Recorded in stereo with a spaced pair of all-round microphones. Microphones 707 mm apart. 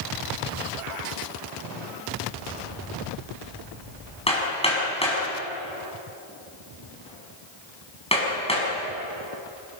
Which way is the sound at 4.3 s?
10° left (ahead or behind).